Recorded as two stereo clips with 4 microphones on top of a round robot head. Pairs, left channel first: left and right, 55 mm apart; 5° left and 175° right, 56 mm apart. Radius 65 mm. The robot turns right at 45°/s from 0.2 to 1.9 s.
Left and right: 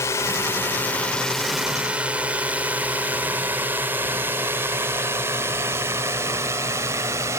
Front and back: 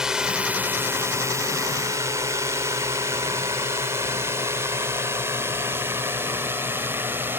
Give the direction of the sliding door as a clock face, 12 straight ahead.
I don't hear a sliding door.